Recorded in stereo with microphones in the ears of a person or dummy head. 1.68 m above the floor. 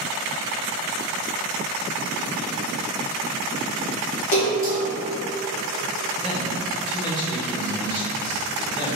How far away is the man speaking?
About 1.8 m.